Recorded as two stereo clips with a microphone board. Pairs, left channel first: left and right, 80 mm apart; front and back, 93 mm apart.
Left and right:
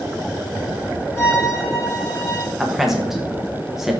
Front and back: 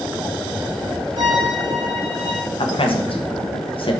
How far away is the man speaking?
About 1.0 m.